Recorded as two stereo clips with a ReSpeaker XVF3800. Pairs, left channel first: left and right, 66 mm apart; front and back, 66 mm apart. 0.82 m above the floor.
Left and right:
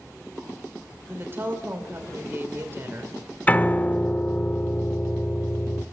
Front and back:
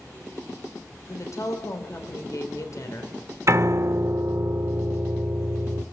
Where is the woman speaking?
35° right, 3.5 m.